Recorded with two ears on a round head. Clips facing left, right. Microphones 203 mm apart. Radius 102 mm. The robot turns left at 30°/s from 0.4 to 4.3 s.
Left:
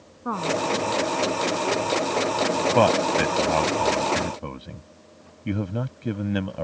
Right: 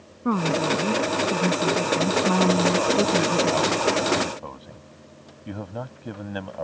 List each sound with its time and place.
0.2 s a woman speaking: 35° right; by 3.8 s 135° right
2.8 s a man speaking: 80° left; by 6.6 s 35° left (ahead or behind)